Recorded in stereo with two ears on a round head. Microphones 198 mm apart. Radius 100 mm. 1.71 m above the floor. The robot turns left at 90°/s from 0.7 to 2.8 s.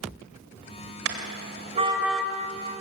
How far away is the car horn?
About 3 m.